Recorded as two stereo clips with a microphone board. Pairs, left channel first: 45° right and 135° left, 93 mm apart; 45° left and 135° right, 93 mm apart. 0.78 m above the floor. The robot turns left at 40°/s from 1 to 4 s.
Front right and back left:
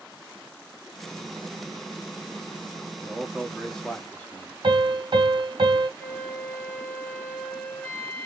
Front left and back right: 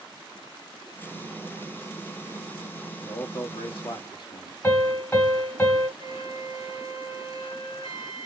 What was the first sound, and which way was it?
A man speaking, 65° left.